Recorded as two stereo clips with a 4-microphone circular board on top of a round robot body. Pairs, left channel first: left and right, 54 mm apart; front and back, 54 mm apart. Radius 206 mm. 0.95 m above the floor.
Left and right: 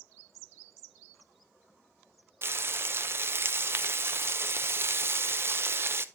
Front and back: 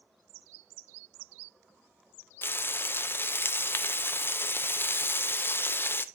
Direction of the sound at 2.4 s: 45° right.